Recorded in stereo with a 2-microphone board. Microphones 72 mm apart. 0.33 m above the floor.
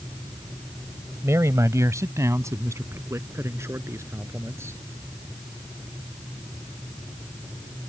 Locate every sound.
1.2 s a man speaking: 40° right (ahead or behind); by 4.8 s 35° right (ahead or behind)